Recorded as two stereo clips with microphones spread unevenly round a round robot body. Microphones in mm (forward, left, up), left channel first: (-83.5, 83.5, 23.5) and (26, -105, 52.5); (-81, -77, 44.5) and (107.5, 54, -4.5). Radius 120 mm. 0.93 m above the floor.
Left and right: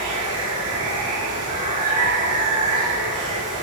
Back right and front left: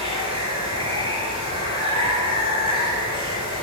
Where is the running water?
35° right, 4.5 m.